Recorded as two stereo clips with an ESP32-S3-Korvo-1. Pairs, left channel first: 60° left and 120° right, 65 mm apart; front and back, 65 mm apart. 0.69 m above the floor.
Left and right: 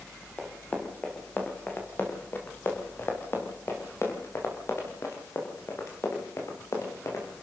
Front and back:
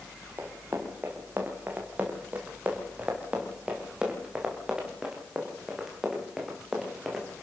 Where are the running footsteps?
125° left, 5.5 m; by 7.2 s 95° left, 7.5 m.